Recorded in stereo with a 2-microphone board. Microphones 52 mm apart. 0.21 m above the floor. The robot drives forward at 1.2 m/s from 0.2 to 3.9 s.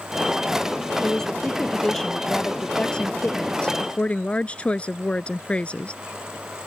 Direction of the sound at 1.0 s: 10° left (ahead or behind).